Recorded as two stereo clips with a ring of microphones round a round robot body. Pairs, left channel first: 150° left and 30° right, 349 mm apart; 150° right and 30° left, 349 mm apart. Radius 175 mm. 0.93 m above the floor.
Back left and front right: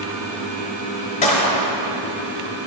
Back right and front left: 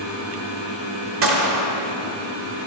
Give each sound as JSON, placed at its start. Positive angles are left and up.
{"t": 1.2, "sound": "a gunshot", "azimuth_deg": 80, "distance_m": 1.2}